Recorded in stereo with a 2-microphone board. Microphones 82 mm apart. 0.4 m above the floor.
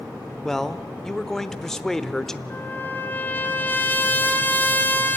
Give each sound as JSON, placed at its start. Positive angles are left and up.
{"t": 0.5, "sound": "a man speaking", "side_deg": 5, "distance_m": 0.8}
{"t": 2.5, "sound": "a trumpet", "side_deg": 25, "distance_m": 1.8}